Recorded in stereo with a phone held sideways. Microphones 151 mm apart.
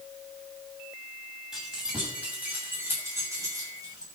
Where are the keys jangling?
5° right (ahead or behind), 7 m; by 4.0 s 30° right (ahead or behind), 6 m.